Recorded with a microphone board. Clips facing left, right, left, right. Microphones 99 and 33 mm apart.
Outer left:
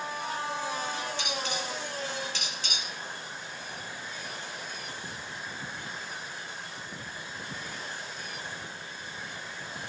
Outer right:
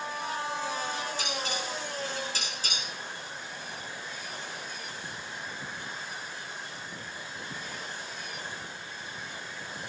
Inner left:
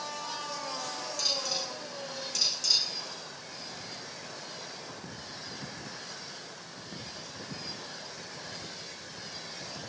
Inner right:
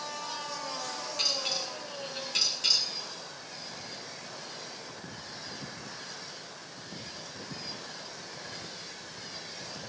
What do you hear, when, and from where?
1.2 s dishes clattering: 40° right (ahead or behind), 9 m